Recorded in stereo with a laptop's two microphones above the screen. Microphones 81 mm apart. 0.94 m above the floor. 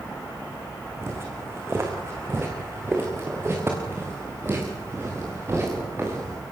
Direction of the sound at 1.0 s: 30° right (ahead or behind).